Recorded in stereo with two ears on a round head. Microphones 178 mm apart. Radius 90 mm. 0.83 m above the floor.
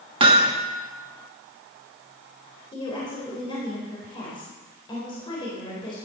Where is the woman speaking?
25° left (ahead or behind), 4 m.